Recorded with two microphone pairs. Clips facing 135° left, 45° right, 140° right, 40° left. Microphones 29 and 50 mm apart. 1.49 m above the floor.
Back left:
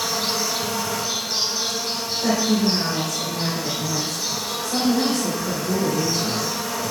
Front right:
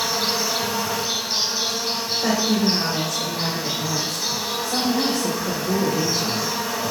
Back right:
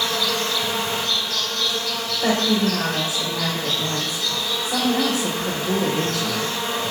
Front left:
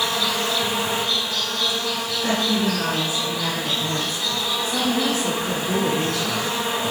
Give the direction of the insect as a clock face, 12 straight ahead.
1 o'clock.